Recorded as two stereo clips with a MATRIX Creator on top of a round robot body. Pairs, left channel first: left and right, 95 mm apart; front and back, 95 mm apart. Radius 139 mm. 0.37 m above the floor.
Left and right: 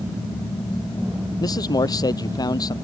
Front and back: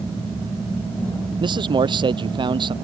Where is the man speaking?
140° left.